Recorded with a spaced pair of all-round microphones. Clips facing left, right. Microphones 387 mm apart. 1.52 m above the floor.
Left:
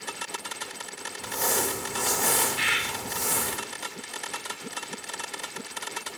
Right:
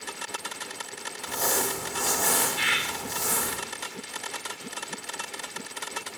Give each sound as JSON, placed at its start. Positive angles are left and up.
{"t": 1.2, "sound": "crumpling", "side_deg": 10, "distance_m": 1.9}
{"t": 2.6, "sound": "a bird", "side_deg": -25, "distance_m": 1.6}